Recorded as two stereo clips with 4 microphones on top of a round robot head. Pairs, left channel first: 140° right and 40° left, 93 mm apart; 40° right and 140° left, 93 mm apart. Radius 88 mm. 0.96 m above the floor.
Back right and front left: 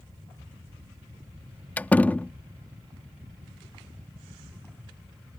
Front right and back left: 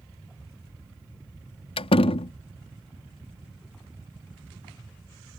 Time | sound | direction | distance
1.8 | a door slam | 65° right | ?